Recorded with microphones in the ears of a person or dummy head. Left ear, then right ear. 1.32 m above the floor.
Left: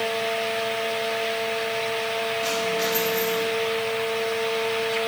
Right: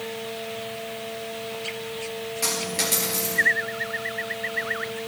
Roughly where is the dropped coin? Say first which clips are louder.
Right 2 dB; right.